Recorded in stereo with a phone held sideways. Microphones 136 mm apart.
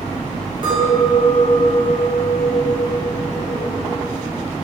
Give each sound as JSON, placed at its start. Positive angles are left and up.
{"t": 0.6, "sound": "a clink", "side_deg": -35, "distance_m": 1.0}